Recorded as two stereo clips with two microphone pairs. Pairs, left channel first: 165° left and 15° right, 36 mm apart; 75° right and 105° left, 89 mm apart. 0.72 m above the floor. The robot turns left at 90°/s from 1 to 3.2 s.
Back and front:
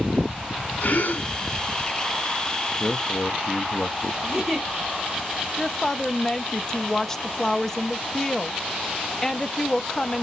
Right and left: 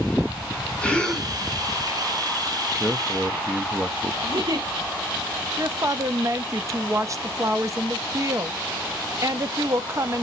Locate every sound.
0.8 s a gasp: 155° right, 1.6 m; by 1.3 s straight behind, 1.6 m
2.8 s a man speaking: 165° right, 0.5 m; by 4.1 s 155° left, 0.5 m
4.2 s a giggle: 70° left, 1.7 m
5.6 s a woman speaking: 95° left, 0.5 m